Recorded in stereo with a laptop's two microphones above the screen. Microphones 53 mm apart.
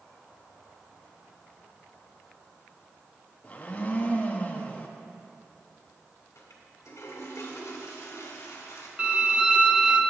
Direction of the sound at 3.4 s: 30° left (ahead or behind).